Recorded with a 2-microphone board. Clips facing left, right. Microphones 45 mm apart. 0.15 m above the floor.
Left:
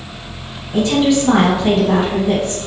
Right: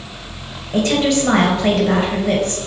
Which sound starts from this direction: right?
A woman speaking, at 0.7 s.